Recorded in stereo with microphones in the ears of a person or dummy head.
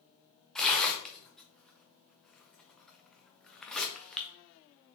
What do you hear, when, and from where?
0.6 s tearing paper: centre (ahead or behind), 0.6 m